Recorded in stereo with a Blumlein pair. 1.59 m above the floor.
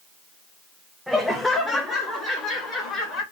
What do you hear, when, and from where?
1.1 s laughter: straight ahead, 0.6 m; by 3.2 s 25° left, 2 m